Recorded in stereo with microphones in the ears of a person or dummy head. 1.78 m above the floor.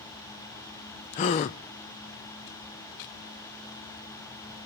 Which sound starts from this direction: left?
A gasp, at 1.1 s.